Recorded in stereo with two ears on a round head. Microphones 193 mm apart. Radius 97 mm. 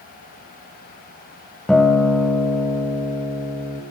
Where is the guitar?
Centre (ahead or behind), 1.2 m.